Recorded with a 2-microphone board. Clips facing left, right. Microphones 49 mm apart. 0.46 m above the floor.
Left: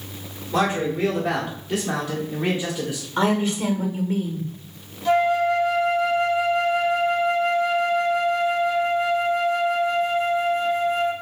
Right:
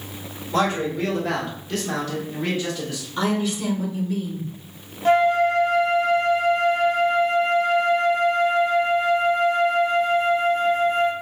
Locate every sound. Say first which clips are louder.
0.5 s a man speaking: even; 5° left (ahead or behind), 1.7 m; by 3.1 s 15° left (ahead or behind), 1.2 m
3.2 s a woman speaking: left 2 dB; 30° left (ahead or behind), 1.1 m
5.0 s a flute: right 2 dB; 40° right (ahead or behind), 0.8 m